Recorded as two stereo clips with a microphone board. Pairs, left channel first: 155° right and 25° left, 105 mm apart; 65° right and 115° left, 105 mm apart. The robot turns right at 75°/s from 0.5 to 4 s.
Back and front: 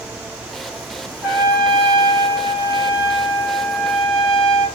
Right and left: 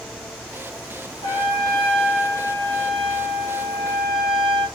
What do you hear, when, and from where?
1.2 s a trumpet: 50° right, 1.1 m; by 4.7 s 160° left, 1.1 m